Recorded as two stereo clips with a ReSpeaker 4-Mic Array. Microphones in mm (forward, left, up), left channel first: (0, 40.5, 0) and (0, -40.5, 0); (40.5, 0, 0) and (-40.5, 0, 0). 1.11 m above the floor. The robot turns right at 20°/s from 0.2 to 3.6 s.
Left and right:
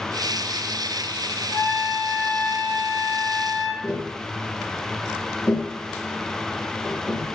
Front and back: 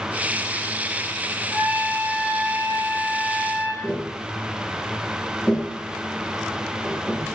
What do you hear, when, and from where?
1.5 s a trumpet: 115° left, 1.3 m; by 3.7 s 155° left, 1.3 m
3.8 s tapping: 55° left, 1.8 m